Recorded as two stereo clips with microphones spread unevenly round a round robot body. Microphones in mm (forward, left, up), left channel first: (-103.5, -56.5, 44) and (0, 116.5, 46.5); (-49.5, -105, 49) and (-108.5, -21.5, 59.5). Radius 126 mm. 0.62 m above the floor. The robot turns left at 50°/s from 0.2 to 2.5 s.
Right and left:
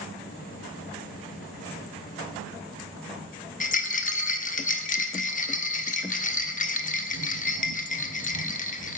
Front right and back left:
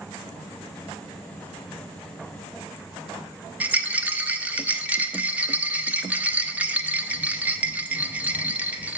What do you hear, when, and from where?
3.6 s a rattle: 160° right, 0.9 m